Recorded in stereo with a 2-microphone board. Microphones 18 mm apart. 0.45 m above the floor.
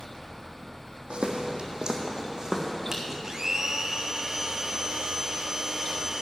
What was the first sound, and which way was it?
Footsteps, 70° right (ahead or behind).